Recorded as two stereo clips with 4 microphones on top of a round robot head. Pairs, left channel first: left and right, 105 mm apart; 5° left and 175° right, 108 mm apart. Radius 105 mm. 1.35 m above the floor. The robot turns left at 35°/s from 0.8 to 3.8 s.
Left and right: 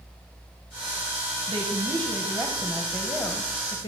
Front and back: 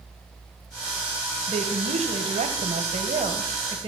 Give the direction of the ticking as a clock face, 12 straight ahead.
I don't hear ticking.